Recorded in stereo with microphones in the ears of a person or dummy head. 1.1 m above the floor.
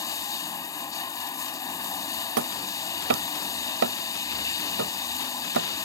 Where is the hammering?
70° right (ahead or behind).